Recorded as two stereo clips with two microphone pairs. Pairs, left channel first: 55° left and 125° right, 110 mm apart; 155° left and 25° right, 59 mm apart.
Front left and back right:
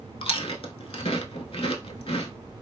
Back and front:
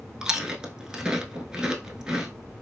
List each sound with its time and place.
0.2 s chewing: 50° left, 0.5 m